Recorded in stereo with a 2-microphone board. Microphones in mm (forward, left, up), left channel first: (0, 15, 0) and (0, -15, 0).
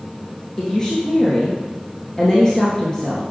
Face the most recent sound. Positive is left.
turn(degrees=25)  # may be behind; listen again after turning